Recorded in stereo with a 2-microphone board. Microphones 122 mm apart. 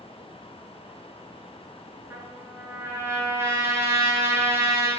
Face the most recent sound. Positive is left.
turn(degrees=-20)  # may be behind; listen again after turning